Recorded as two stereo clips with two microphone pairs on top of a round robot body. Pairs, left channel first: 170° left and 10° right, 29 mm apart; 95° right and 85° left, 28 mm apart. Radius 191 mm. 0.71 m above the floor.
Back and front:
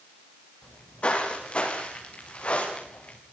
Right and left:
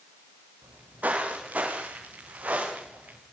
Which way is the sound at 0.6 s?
115° left.